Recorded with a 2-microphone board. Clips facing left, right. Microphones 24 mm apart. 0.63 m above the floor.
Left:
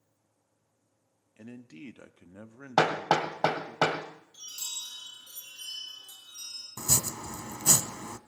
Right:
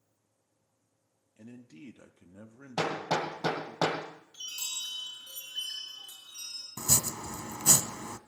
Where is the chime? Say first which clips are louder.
Right 2 dB; 75° right (ahead or behind), 6.5 m.